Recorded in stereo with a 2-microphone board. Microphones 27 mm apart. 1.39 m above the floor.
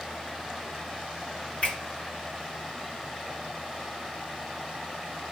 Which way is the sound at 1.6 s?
60° left (ahead or behind).